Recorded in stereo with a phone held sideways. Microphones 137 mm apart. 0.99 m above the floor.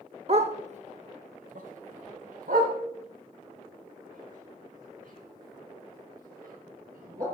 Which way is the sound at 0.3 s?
45° right (ahead or behind).